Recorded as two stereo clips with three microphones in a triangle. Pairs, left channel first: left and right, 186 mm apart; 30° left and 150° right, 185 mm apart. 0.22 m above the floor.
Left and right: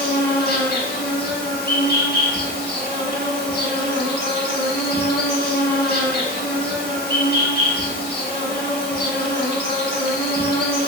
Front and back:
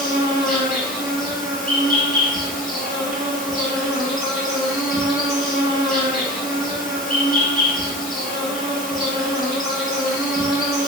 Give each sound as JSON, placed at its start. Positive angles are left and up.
{"t": 0.0, "sound": "an insect", "azimuth_deg": 65, "distance_m": 1.0}